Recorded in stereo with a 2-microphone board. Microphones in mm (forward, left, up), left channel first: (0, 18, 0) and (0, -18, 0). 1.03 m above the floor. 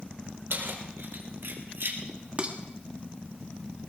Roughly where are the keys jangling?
Right.